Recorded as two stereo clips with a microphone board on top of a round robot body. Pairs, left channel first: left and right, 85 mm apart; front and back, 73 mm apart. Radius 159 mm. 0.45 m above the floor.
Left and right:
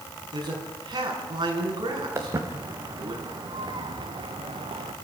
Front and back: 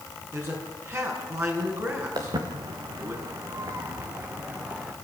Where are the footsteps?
150° right, 3 m; by 4.9 s 105° right, 2.5 m.